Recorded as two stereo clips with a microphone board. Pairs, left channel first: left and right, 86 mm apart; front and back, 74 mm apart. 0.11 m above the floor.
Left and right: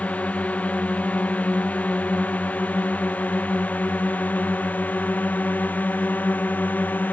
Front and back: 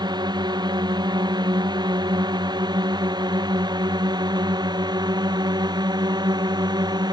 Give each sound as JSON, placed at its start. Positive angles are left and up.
{"t": 0.0, "sound": "a drone", "azimuth_deg": 165}